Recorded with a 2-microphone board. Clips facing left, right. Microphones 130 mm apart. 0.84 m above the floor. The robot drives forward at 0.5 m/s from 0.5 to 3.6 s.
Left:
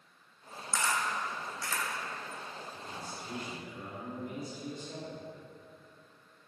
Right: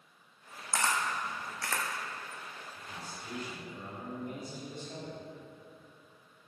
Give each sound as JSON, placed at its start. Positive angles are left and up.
{"t": 0.7, "sound": "a camera shutter", "side_deg": -65, "distance_m": 0.6}
{"t": 2.7, "sound": "a man speaking", "side_deg": 20, "distance_m": 2.0}